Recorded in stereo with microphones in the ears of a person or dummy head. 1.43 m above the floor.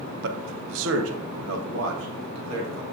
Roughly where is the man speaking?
Right.